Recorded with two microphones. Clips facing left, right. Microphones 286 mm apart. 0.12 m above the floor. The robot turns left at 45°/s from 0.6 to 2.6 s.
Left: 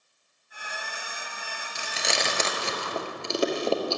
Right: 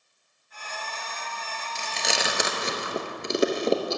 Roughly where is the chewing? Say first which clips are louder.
Even; centre.